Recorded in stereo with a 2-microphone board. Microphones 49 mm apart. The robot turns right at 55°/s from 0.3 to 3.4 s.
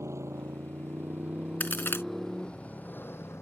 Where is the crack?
35° left (ahead or behind); by 2.0 s 55° left (ahead or behind).